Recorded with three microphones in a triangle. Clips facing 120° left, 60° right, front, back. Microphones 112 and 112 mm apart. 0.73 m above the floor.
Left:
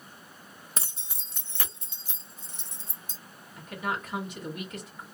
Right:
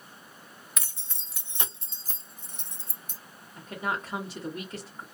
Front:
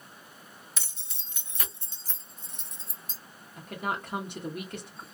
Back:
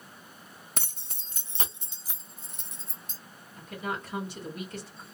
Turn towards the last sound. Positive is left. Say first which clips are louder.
# right 1 dB, front 2 dB
turn(degrees=-5)